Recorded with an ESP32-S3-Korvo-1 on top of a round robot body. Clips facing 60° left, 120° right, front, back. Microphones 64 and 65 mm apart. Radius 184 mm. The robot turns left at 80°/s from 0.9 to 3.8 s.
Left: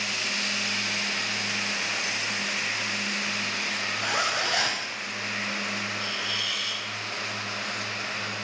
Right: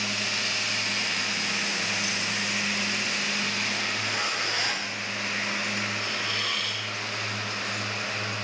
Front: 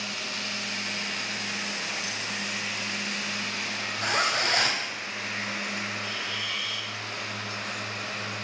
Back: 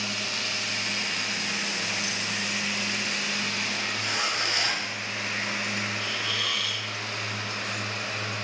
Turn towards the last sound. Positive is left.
turn(degrees=-165)